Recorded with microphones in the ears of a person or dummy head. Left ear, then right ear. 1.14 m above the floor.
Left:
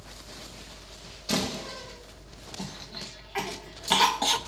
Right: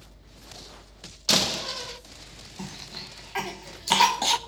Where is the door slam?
50° right (ahead or behind), 0.9 m.